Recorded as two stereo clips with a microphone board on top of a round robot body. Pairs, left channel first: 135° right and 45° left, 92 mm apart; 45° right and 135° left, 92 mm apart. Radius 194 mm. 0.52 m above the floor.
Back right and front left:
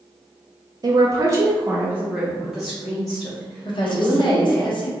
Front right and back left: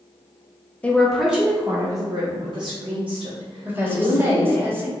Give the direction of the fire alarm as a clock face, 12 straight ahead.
No fire alarm in this recording.